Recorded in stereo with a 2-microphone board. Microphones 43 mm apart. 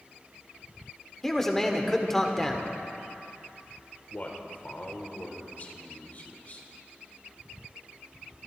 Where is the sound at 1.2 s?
10° left (ahead or behind), 1.5 m.